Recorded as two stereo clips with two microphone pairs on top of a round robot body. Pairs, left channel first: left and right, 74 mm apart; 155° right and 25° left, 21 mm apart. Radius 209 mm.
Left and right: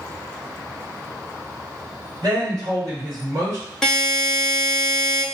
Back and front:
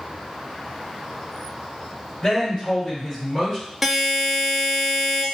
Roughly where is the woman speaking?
Right.